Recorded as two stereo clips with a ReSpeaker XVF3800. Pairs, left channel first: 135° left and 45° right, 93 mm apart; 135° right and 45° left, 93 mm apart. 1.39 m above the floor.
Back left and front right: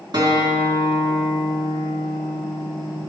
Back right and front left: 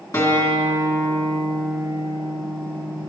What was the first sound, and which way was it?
A guitar, 80° right.